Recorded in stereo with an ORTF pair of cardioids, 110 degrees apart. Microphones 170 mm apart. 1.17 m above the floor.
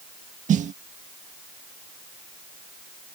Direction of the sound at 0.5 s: 50° right.